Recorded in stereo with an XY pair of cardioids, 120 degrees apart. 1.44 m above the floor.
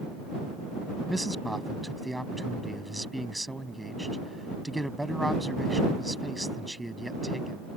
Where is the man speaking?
5° right.